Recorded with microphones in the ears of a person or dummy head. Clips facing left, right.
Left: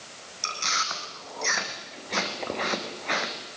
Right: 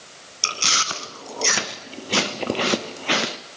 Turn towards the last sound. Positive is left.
turn(degrees=-40)  # may be behind; listen again after turning